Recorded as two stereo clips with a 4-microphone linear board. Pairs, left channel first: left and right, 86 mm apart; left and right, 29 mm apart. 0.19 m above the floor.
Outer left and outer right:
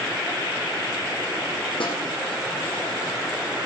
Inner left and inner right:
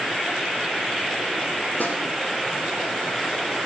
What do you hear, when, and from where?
1.8 s a snare drum: 85° left, 4 m